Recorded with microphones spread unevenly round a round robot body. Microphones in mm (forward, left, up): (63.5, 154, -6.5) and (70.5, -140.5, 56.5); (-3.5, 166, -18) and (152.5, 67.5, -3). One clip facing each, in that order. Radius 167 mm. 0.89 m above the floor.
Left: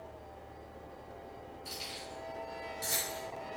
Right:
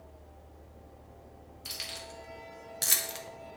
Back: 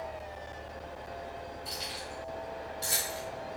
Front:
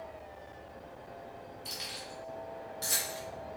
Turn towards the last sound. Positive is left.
turn(degrees=-110)